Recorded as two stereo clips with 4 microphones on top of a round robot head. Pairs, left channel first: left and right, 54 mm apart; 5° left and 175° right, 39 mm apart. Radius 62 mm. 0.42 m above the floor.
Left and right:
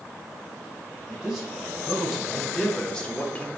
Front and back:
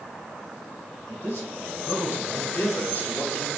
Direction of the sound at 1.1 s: 10° right.